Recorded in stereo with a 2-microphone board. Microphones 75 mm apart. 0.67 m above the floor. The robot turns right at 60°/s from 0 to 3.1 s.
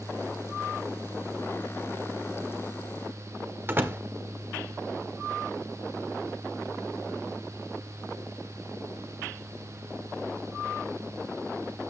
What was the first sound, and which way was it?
A door slam, 25° right (ahead or behind).